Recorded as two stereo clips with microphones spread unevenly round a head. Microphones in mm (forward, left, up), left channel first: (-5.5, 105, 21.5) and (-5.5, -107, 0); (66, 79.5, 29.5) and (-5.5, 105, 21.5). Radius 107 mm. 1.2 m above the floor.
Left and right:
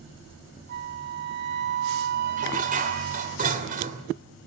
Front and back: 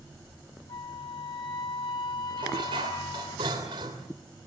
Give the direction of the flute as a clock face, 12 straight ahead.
2 o'clock.